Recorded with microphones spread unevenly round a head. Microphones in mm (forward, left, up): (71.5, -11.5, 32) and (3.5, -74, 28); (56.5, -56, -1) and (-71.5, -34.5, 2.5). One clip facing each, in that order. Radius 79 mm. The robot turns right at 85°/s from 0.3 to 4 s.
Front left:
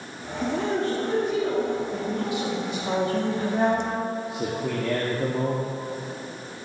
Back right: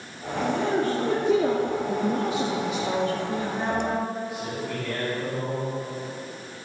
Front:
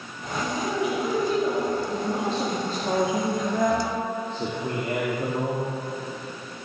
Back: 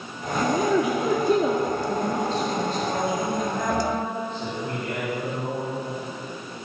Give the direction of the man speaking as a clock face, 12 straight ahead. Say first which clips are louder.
Back right 1 dB, back 5 dB; 8 o'clock.